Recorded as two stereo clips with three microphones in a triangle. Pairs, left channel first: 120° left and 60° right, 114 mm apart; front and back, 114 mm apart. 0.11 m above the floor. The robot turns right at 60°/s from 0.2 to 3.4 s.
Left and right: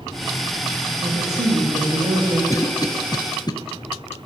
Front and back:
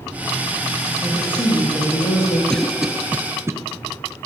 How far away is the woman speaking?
About 7.5 m.